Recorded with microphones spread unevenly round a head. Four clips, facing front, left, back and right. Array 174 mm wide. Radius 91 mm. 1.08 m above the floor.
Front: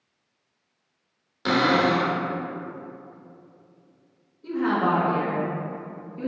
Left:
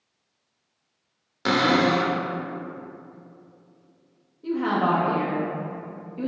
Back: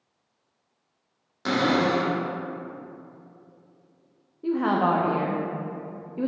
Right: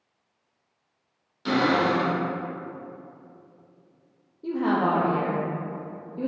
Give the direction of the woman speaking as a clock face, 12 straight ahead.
5 o'clock.